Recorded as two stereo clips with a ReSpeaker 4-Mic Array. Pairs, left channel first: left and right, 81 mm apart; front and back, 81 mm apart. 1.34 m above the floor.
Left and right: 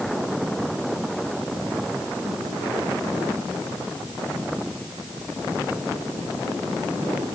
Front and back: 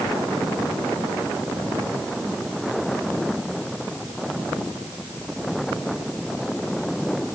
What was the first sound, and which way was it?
Only background noise.